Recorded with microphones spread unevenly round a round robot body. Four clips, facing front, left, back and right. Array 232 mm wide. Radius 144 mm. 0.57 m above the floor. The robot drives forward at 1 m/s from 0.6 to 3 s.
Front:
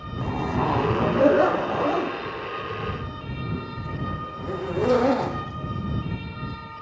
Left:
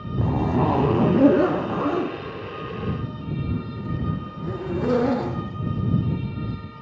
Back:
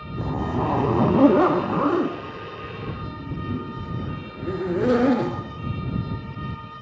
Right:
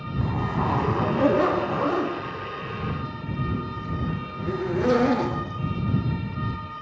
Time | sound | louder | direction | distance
0.2 | a zipper | left 5 dB, even | 105° left | 0.9 m